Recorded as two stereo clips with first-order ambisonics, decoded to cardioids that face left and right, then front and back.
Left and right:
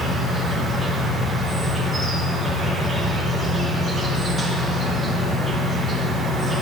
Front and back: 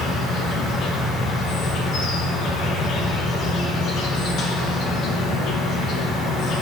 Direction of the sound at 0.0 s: 25° right.